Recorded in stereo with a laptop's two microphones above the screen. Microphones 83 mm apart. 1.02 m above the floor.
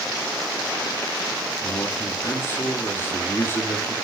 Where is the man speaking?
25° left (ahead or behind), 2 m.